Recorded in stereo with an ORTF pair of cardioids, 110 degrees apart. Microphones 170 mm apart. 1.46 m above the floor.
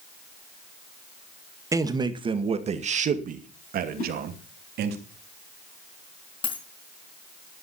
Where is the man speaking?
20° right, 2 m; by 5.0 s 75° right, 3 m.